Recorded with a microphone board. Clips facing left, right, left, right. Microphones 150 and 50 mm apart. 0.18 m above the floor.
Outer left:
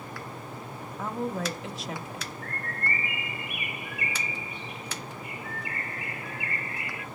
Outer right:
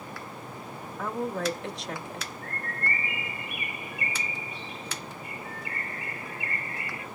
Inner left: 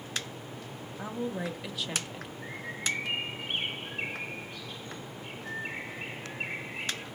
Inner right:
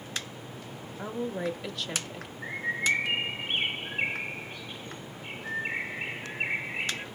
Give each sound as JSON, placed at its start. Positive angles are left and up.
{"t": 1.0, "sound": "a woman speaking", "side_deg": 5, "distance_m": 1.0}
{"t": 2.4, "sound": "a bird", "side_deg": -30, "distance_m": 0.6}